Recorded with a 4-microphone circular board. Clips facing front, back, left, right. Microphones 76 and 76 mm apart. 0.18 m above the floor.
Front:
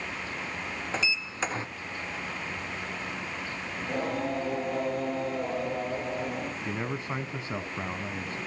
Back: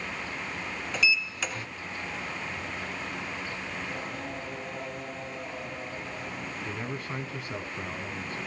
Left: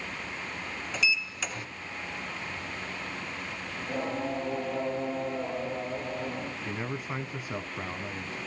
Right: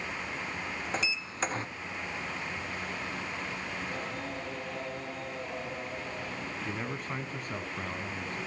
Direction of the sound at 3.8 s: 30° left.